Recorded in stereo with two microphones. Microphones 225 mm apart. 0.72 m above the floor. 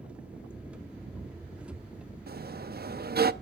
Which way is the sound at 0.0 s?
5° right (ahead or behind).